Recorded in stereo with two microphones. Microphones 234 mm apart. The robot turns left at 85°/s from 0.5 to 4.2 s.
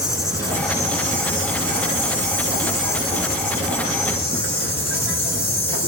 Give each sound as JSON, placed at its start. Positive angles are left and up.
{"t": 0.0, "sound": "an insect", "azimuth_deg": 15, "distance_m": 1.2}